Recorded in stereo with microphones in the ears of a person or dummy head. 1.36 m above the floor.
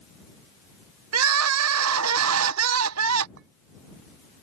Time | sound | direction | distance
1.1 | crying | 80° right | ?
3.4 | a clink | 70° right (ahead or behind) | ?